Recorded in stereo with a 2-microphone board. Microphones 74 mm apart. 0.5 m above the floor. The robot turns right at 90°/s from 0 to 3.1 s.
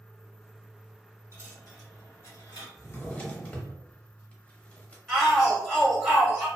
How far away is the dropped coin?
About 1.7 m.